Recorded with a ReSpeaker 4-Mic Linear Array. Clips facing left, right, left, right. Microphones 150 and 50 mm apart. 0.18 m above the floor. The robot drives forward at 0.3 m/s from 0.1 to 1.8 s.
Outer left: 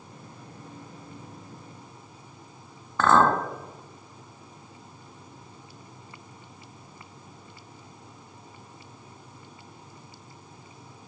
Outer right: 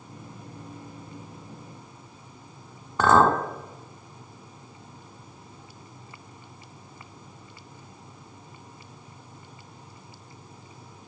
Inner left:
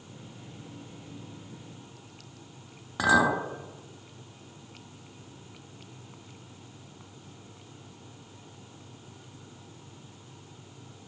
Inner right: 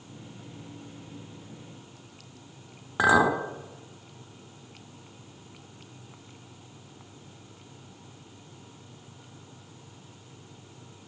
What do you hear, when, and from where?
3.0 s a clink: 15° right (ahead or behind), 0.6 m